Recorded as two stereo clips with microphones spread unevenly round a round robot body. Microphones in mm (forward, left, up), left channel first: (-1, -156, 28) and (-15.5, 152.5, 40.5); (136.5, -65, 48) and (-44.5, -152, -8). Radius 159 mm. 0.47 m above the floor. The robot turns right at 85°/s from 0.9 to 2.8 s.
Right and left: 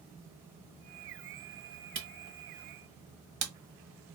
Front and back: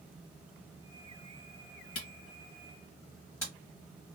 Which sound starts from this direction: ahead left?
A camera shutter, at 1.9 s.